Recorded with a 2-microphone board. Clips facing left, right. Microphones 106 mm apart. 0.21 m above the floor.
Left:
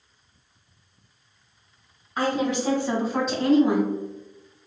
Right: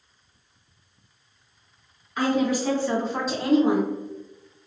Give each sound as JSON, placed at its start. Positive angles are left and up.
{"t": 2.2, "sound": "a woman speaking", "side_deg": 35, "distance_m": 1.8}